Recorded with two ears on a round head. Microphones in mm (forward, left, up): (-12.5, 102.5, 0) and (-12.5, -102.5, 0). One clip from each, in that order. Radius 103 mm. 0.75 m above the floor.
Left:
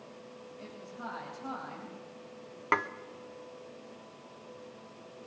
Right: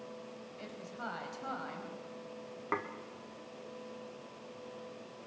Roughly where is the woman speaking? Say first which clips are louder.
Even; right.